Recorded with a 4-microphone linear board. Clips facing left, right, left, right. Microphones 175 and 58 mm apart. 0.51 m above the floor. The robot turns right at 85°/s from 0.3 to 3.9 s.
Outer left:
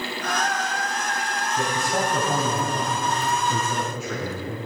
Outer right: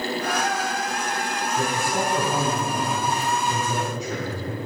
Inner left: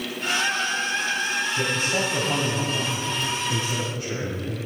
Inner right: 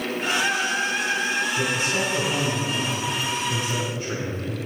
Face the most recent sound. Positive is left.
turn(degrees=-160)